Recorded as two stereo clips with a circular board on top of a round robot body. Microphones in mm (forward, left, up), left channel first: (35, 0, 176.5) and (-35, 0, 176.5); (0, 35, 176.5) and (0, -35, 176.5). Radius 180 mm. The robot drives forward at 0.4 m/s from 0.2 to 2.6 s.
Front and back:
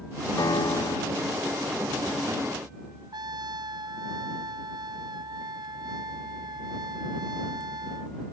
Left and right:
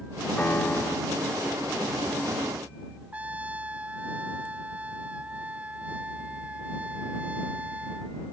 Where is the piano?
25° left.